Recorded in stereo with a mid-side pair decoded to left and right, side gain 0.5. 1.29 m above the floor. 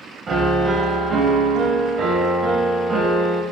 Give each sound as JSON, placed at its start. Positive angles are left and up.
{"t": 0.3, "sound": "a piano", "azimuth_deg": -50, "distance_m": 0.7}